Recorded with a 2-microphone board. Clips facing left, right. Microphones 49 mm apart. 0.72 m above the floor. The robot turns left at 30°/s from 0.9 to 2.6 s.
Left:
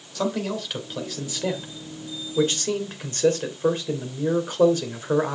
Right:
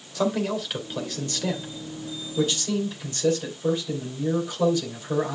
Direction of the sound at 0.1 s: 175° right.